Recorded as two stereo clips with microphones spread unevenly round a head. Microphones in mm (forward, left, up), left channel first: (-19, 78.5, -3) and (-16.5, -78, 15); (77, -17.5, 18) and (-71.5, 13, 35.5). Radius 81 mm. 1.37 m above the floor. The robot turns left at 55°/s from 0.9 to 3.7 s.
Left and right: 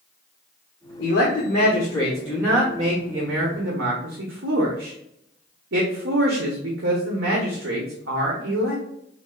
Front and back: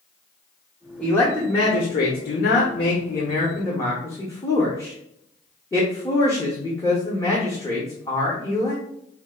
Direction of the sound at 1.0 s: 70° left.